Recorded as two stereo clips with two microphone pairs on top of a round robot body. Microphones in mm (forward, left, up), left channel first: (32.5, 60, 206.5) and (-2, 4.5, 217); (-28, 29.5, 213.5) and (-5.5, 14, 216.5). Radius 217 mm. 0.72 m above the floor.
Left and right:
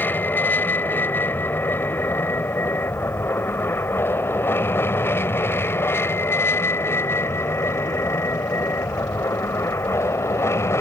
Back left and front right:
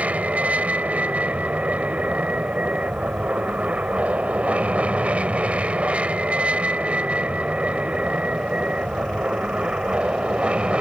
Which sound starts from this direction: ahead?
An aircraft, at 0.0 s.